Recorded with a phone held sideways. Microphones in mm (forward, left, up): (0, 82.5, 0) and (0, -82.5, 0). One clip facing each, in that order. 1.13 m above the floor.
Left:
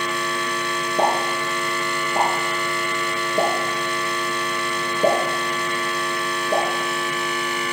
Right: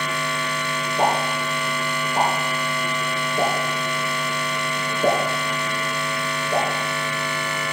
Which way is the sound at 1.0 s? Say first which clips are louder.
Even; 35° left (ahead or behind).